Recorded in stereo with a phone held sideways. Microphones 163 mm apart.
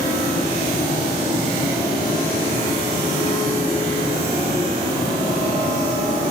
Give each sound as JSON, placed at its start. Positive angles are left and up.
{"t": 0.0, "sound": "a fan", "side_deg": 45, "distance_m": 2.0}